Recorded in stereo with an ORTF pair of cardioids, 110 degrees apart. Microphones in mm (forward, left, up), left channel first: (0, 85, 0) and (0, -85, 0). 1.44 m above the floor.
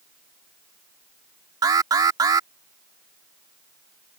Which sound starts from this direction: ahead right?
An alarm, at 1.6 s.